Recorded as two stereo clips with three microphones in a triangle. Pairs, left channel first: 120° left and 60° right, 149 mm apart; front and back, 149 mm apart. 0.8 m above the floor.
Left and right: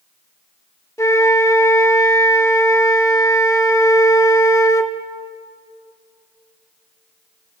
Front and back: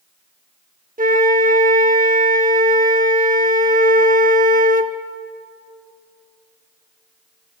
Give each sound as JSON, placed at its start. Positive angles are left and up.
{"t": 1.0, "sound": "a flute", "azimuth_deg": -170, "distance_m": 0.9}